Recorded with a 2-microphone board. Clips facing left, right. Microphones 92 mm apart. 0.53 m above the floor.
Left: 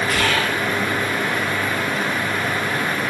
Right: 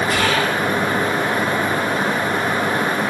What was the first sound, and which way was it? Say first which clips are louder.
Whispering: right 2 dB; 15° right (ahead or behind).